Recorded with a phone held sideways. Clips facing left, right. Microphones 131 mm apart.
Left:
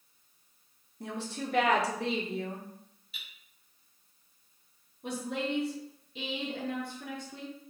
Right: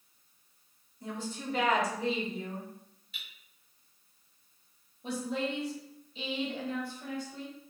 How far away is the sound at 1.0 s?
About 1.0 m.